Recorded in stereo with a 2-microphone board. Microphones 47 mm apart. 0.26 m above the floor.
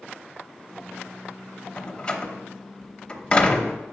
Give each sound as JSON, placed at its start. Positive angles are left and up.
{"t": 1.8, "sound": "a door slam", "side_deg": 25, "distance_m": 0.8}